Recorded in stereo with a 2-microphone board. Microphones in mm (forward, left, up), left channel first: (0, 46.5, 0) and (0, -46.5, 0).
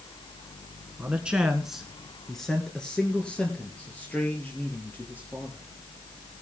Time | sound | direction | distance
1.0 | a man speaking | 15° right (ahead or behind) | 1.3 m